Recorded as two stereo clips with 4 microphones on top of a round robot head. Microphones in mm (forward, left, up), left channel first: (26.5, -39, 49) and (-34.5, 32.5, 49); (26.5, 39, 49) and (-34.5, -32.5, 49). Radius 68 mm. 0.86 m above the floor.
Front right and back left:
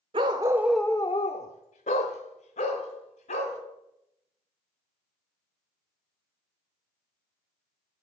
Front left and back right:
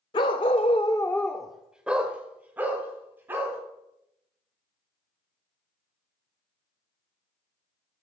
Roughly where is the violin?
No violin in this recording.